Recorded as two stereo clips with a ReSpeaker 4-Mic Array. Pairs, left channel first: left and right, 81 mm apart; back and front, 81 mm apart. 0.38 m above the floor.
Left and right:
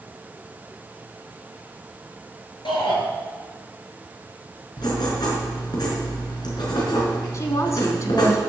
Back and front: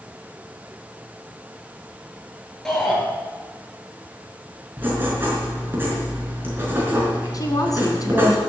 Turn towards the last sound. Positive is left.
turn(degrees=140)